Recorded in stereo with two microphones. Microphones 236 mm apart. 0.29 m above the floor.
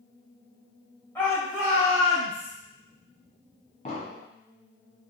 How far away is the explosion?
About 0.8 m.